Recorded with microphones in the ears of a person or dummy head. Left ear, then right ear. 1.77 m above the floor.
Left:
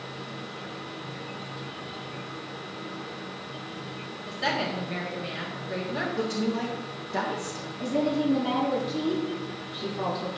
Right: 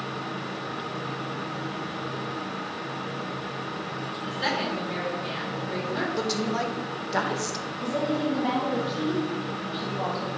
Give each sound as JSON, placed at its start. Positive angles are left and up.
{"t": 4.3, "sound": "a woman speaking", "side_deg": -15, "distance_m": 3.0}
{"t": 6.2, "sound": "a woman speaking", "side_deg": -70, "distance_m": 1.4}
{"t": 7.8, "sound": "a woman speaking", "side_deg": -10, "distance_m": 3.0}